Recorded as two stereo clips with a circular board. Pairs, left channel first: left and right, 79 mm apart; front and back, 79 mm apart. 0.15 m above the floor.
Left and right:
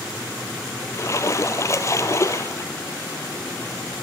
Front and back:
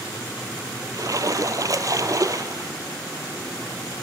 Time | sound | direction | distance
0.9 | a splash | 140° left | 2 m